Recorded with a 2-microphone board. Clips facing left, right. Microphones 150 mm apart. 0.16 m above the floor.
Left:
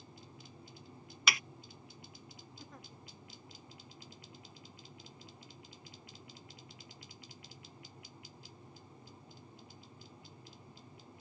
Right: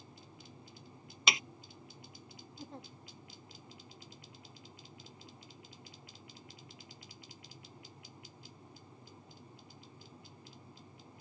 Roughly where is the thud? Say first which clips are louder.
Right 1 dB; right.